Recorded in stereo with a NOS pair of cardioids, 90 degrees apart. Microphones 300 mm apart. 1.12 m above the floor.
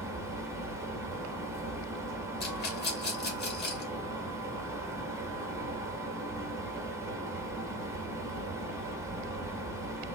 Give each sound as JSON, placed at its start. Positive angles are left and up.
{"t": 0.0, "sound": "a fan", "azimuth_deg": -10, "distance_m": 1.5}
{"t": 2.4, "sound": "a rattle", "azimuth_deg": 35, "distance_m": 2.0}